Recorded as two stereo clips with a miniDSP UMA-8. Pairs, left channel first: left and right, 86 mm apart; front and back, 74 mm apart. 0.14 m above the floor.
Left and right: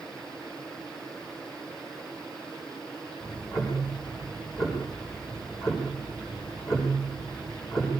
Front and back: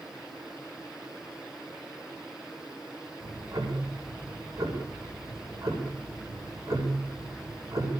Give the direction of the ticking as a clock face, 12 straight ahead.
8 o'clock.